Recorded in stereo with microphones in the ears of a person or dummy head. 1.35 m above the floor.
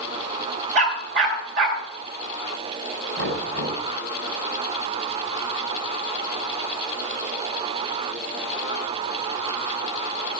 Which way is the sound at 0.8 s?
75° right (ahead or behind).